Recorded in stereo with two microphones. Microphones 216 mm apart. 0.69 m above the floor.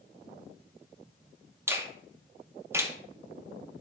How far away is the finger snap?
About 0.8 m.